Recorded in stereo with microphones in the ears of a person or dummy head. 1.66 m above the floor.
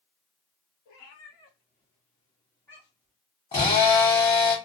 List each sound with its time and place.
0.8 s a cat meowing: 45° left (ahead or behind), 1.6 m; by 3.1 s 10° right (ahead or behind), 0.9 m
3.5 s a drill: 25° left (ahead or behind), 1.5 m